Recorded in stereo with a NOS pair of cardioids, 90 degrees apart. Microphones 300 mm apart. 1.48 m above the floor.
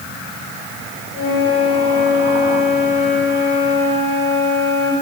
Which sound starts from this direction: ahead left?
A flute, at 1.1 s.